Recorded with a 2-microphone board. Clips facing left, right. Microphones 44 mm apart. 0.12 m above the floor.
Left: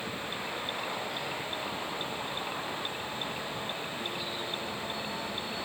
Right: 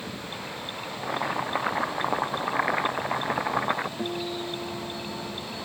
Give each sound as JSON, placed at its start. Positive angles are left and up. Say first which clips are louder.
{"t": 1.0, "sound": "boiling", "louder": "right 7 dB", "side_deg": -70}
{"t": 4.0, "sound": "a guitar", "louder": "right 5 dB", "side_deg": -45}